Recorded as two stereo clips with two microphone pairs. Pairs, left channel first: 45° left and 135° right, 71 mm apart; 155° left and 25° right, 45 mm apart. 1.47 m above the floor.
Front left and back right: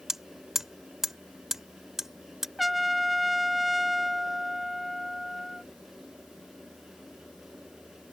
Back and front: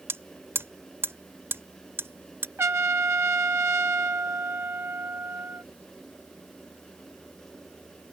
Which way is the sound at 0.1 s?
50° right.